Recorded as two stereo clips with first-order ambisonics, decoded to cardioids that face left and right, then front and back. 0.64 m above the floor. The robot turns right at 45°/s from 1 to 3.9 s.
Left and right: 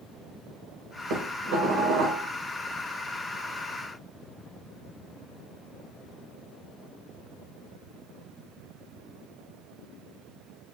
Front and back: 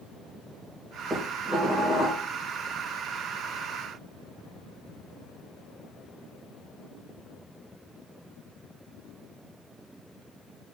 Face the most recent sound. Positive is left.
turn(degrees=20)